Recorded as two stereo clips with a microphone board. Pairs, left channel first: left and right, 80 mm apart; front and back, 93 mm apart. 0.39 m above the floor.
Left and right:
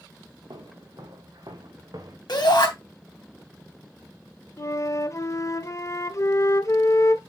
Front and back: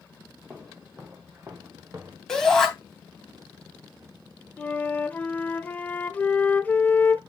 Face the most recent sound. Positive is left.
turn(degrees=65)